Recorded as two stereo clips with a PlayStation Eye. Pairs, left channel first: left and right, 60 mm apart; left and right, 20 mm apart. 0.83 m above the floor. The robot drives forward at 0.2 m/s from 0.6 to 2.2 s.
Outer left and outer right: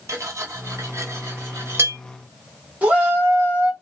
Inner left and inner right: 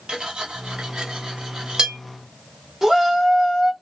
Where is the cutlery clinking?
55° right (ahead or behind), 0.8 m; by 2.0 s 45° right (ahead or behind), 1.0 m.